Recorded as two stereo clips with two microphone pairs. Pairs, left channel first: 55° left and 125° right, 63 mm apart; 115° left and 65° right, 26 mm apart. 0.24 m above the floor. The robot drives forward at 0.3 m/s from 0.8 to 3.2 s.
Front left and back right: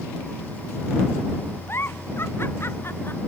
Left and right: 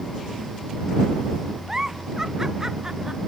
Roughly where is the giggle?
Ahead.